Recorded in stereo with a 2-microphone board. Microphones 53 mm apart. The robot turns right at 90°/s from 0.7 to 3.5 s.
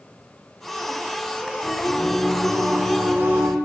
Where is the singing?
105° left, 4.5 m; by 3.5 s 85° right, 4.5 m.